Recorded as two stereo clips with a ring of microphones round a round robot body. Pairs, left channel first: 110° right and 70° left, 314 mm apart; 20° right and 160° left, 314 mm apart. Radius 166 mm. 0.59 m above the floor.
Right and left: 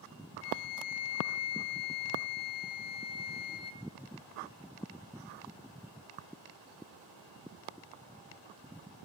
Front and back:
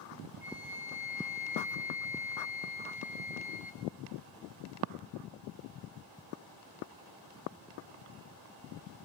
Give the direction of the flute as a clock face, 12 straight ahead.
4 o'clock.